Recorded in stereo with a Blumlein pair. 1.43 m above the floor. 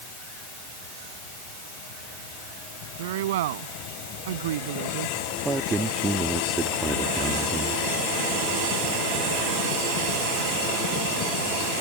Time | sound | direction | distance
3.0 | a woman speaking | 55° right | ?
5.5 | a man speaking | 10° right | ?